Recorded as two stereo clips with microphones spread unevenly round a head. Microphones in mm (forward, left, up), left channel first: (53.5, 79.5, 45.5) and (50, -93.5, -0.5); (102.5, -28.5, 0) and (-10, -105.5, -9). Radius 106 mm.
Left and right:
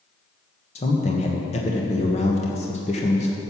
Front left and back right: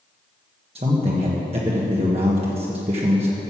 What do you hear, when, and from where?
0.8 s a man speaking: 150° left, 1.3 m